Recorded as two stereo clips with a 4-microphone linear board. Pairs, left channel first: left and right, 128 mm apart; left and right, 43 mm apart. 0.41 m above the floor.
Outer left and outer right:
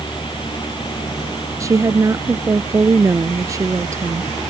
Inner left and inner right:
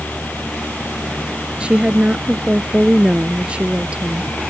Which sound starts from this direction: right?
A woman speaking, at 1.6 s.